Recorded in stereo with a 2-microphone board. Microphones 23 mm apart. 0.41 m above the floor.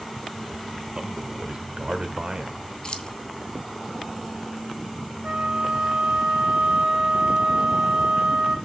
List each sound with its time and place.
0.9 s a man speaking: 45° right (ahead or behind), 1.2 m
2.8 s keys jangling: 45° left (ahead or behind), 0.9 m
5.2 s a flute: 55° right (ahead or behind), 1.9 m